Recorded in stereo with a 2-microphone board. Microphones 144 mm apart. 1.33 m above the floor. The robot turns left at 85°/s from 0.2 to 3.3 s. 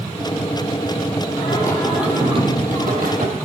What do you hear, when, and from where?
1.4 s singing: 40° left, 9 m; by 3.4 s 120° right, 9 m